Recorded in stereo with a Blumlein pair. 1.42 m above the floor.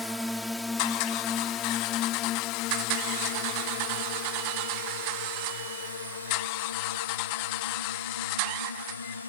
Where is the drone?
Straight ahead; by 9.3 s 80° left.